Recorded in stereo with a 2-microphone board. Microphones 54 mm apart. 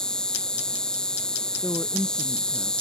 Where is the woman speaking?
15° left (ahead or behind).